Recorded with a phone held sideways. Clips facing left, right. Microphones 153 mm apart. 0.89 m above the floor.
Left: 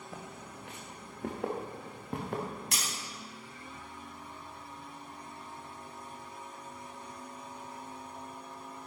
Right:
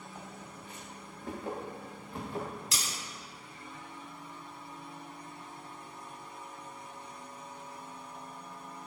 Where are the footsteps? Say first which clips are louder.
Left 3 dB; 75° left (ahead or behind), 3.5 m; by 2.4 s 65° left (ahead or behind), 5 m.